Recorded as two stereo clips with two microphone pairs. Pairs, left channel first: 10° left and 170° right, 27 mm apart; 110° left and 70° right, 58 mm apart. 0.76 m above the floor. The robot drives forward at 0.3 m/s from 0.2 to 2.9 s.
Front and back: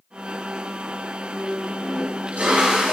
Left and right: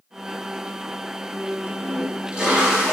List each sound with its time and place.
1.7 s a toilet flushing: 140° right, 4.5 m; by 2.9 s 145° right, 5 m